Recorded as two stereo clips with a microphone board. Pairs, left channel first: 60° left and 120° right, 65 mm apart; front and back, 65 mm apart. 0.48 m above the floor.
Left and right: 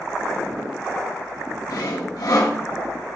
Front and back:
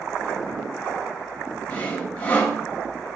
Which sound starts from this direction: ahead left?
Sawing, at 1.7 s.